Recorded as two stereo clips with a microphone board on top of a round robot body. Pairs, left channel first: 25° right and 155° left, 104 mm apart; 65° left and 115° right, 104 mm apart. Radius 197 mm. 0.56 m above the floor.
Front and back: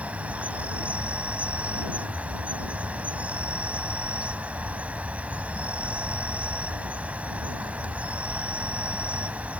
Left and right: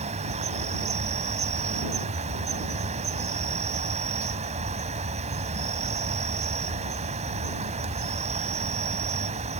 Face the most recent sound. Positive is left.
turn(degrees=-125)